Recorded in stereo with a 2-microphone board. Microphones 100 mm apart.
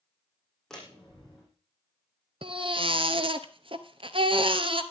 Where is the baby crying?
60° right (ahead or behind), 1.0 m.